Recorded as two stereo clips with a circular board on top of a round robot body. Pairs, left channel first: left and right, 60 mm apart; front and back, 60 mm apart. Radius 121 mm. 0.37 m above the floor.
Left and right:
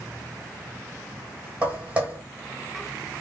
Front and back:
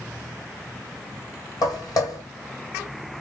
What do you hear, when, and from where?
1.6 s footsteps: 20° right, 1.1 m